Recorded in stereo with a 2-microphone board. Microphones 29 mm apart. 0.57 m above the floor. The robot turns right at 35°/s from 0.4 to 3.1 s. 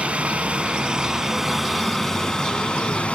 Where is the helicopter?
45° right; by 3.1 s 50° left.